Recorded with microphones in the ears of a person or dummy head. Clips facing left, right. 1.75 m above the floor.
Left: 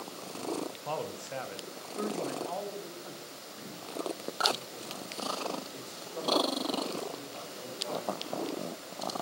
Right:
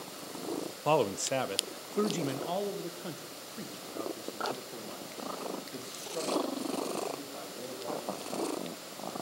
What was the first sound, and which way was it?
A man speaking, 85° right.